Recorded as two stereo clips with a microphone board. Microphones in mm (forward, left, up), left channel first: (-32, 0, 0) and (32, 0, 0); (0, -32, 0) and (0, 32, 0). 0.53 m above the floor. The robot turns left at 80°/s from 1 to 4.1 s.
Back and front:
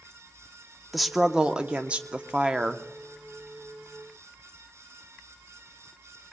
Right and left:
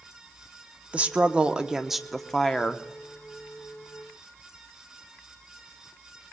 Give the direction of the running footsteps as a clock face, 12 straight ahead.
No running footsteps in this recording.